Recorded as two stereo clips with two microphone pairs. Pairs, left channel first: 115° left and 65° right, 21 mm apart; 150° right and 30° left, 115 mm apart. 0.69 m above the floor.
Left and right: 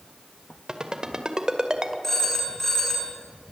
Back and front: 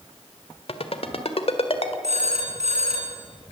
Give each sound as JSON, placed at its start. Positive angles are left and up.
{"t": 0.7, "sound": "a ringtone", "azimuth_deg": -120, "distance_m": 1.8}
{"t": 2.0, "sound": "a phone ringing", "azimuth_deg": 45, "distance_m": 4.0}